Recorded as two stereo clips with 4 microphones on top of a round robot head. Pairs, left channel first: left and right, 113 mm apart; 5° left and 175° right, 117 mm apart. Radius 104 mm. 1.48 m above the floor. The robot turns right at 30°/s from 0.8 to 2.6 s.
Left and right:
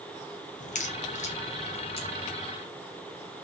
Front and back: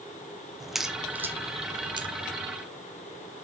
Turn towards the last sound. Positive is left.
turn(degrees=150)